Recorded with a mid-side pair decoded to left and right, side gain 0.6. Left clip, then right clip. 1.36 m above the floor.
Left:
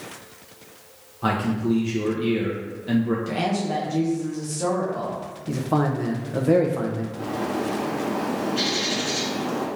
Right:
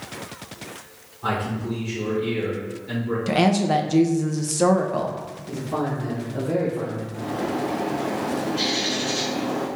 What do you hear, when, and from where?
1.2 s a man speaking: 55° left, 1.0 m
3.3 s a woman speaking: 45° right, 0.7 m
5.5 s a man speaking: 55° left, 0.9 m
7.1 s a bird: 35° left, 1.3 m